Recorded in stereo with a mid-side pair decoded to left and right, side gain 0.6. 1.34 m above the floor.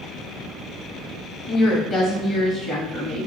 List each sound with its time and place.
1.5 s a woman speaking: 45° left, 1.3 m